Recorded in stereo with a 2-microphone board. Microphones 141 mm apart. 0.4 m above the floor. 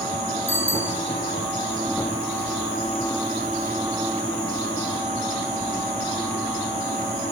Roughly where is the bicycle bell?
Centre.